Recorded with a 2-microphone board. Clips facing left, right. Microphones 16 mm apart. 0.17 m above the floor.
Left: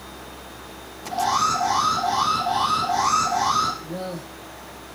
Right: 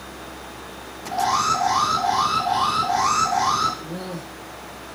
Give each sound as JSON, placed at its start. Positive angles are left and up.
{"t": 1.1, "sound": "an alarm", "side_deg": 5, "distance_m": 1.6}
{"t": 3.8, "sound": "a man speaking", "side_deg": 10, "distance_m": 1.6}